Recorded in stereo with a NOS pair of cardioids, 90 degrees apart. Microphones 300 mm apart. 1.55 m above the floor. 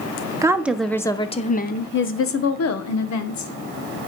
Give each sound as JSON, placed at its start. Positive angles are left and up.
{"t": 0.4, "sound": "a woman speaking", "azimuth_deg": -10, "distance_m": 1.3}